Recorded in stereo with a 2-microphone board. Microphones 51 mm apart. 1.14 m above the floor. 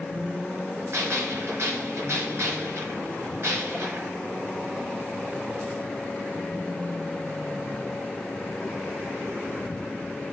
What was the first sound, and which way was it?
A gunshot, 50° right (ahead or behind).